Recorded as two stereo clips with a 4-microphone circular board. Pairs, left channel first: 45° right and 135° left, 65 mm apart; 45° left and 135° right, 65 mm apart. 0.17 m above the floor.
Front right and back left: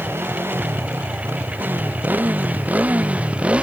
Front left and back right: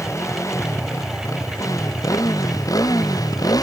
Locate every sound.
0.0 s a motorcycle: 85° left; by 3.6 s 60° left